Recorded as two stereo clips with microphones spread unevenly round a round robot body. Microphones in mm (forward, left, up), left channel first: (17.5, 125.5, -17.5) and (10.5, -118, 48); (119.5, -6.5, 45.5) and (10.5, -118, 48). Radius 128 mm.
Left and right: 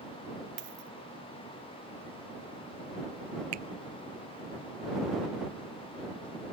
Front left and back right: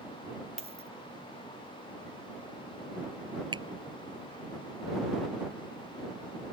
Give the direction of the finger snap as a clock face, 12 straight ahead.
2 o'clock.